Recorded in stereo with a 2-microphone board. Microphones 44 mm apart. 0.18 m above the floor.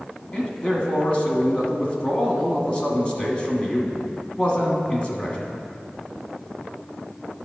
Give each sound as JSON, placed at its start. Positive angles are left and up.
{"t": 0.3, "sound": "a man speaking", "side_deg": 25, "distance_m": 1.4}